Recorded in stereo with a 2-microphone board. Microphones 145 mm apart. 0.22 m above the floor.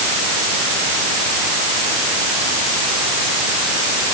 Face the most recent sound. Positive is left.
No sound to turn to.